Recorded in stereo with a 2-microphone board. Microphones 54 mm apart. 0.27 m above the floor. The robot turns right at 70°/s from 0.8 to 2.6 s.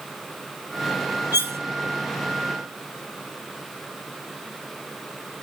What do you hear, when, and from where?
1.3 s cutlery clinking: 40° right (ahead or behind), 0.8 m; by 1.6 s 45° right (ahead or behind), 0.8 m